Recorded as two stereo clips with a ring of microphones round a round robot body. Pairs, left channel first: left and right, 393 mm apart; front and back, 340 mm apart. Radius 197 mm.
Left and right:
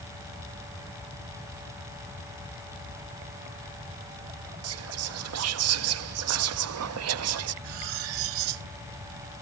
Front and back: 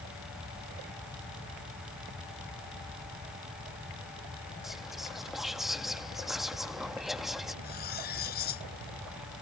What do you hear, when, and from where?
4.6 s whispering: 90° right
7.6 s cutlery clinking: 70° right